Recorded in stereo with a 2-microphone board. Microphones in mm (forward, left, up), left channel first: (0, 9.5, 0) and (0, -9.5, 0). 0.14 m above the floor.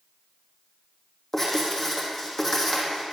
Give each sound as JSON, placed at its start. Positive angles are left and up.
{"t": 1.3, "sound": "writing", "side_deg": 15, "distance_m": 3.0}